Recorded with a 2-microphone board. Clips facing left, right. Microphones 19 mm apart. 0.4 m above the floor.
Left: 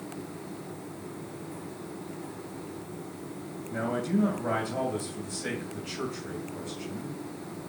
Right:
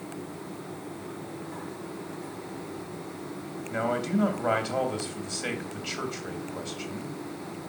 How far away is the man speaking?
About 3 m.